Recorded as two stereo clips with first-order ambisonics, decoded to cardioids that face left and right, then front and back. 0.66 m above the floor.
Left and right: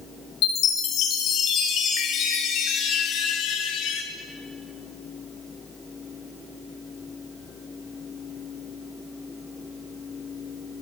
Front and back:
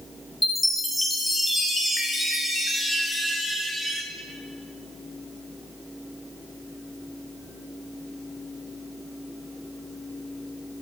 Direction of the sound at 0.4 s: 85° left.